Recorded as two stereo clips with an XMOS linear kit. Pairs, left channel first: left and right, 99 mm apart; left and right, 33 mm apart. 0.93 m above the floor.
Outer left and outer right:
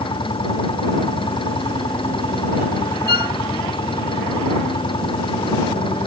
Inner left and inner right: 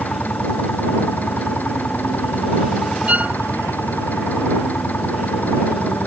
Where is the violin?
60° right (ahead or behind).